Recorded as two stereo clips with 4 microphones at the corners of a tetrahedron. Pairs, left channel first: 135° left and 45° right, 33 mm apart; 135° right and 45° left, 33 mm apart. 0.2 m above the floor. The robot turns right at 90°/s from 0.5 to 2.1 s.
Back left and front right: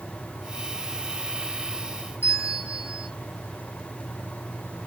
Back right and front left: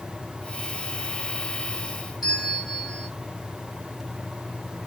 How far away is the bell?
About 1.7 m.